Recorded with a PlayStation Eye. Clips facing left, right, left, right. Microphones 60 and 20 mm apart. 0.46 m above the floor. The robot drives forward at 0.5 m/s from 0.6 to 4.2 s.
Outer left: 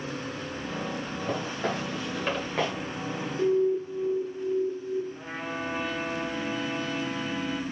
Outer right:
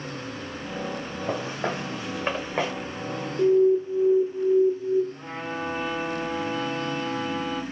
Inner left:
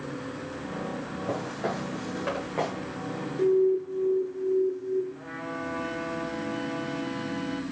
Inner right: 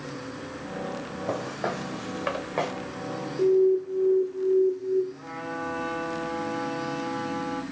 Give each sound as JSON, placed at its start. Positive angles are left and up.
{"t": 1.3, "sound": "footsteps", "side_deg": -15, "distance_m": 2.0}
{"t": 3.4, "sound": "an alarm", "side_deg": -20, "distance_m": 0.6}
{"t": 5.1, "sound": "a trumpet", "side_deg": 0, "distance_m": 1.8}